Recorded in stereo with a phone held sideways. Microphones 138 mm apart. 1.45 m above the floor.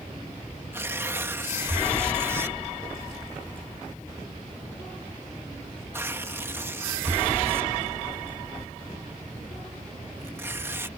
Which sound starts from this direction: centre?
Tearing paper, at 0.7 s.